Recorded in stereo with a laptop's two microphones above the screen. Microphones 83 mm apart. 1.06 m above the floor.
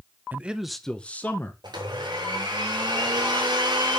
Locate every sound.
0.3 s a man speaking: 20° right (ahead or behind), 0.7 m; by 1.5 s 25° left (ahead or behind), 1.2 m
1.6 s a blender: 60° right (ahead or behind), 3.5 m